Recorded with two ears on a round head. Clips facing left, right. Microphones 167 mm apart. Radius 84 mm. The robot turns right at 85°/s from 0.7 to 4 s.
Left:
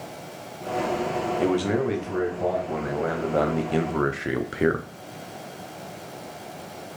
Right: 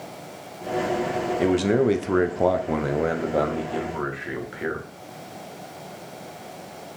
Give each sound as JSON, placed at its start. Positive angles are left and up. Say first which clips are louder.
{"t": 1.4, "sound": "a man speaking", "louder": "right 4 dB", "azimuth_deg": -170, "distance_m": 0.6}